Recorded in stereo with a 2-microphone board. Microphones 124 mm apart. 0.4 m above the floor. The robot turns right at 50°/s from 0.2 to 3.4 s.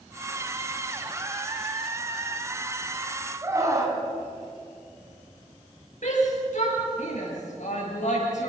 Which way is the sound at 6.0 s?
75° left (ahead or behind).